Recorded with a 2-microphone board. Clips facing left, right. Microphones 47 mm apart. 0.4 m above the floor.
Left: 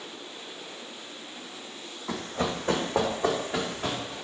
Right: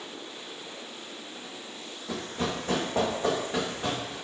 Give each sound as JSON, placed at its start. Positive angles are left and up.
{"t": 2.1, "sound": "running footsteps", "side_deg": 60, "distance_m": 1.1}